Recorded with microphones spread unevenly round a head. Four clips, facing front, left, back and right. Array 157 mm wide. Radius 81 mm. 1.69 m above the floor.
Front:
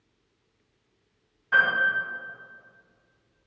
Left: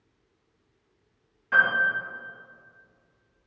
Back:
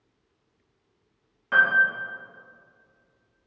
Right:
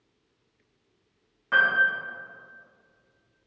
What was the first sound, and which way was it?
A piano, 145° right.